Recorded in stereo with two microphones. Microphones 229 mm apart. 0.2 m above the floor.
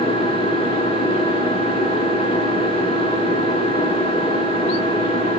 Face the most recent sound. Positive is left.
turn(degrees=30)  # may be behind; listen again after turning